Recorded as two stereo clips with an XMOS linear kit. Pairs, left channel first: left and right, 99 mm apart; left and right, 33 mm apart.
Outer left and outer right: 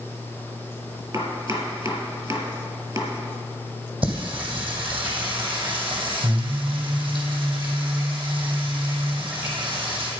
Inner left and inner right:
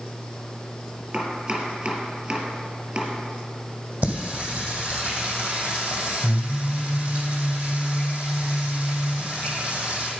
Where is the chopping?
40° right (ahead or behind), 2 m.